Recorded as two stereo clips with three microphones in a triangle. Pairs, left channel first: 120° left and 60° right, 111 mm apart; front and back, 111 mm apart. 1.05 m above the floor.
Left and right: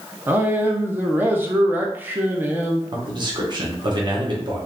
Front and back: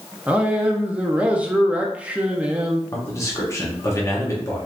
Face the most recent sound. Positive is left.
turn(degrees=-50)